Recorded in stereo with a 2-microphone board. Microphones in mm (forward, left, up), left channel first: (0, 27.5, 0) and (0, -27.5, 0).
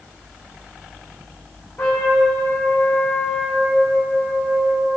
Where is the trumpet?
35° left (ahead or behind), 1.5 m.